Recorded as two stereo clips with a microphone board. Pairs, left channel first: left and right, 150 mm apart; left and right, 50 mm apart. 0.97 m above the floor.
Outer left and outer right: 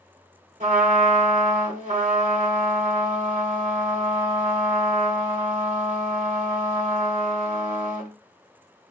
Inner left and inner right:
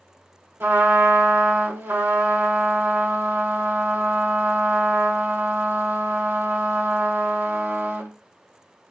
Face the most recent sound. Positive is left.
turn(degrees=-55)  # may be behind; listen again after turning